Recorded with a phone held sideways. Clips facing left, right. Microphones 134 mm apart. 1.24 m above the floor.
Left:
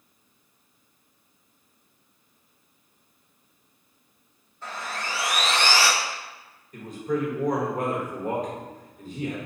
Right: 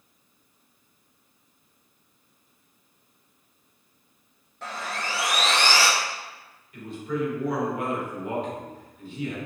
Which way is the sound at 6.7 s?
45° left (ahead or behind).